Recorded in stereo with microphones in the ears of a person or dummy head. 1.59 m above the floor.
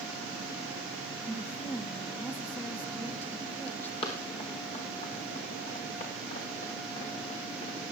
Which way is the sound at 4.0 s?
30° left (ahead or behind).